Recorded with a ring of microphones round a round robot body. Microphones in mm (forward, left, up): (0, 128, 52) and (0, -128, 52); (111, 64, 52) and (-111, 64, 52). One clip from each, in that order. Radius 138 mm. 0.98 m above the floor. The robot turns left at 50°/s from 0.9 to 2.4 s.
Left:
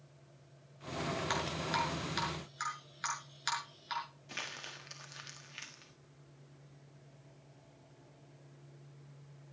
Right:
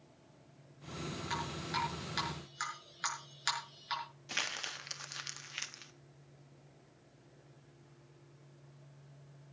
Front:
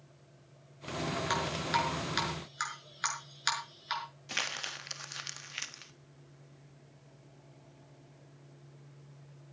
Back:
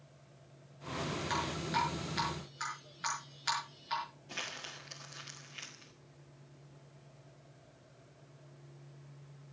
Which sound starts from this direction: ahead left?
Dripping, at 1.3 s.